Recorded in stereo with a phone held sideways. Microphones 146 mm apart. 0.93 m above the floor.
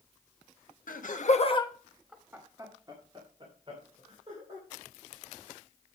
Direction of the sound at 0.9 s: 75° left (ahead or behind).